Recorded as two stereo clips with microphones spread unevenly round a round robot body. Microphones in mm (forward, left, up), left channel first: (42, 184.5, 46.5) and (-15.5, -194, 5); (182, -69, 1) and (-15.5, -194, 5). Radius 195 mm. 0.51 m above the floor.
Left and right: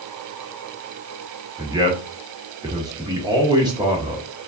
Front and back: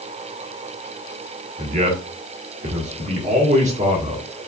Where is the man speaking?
155° right, 1.3 m.